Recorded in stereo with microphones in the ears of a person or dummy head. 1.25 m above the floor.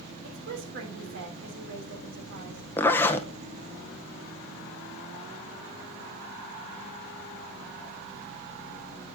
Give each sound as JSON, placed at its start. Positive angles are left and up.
{"t": 0.2, "sound": "a woman speaking", "side_deg": -65, "distance_m": 3.0}
{"t": 2.8, "sound": "a zipper", "side_deg": 10, "distance_m": 1.0}